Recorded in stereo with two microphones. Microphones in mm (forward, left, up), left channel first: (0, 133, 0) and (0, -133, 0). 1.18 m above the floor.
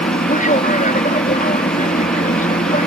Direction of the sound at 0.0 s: 30° left (ahead or behind).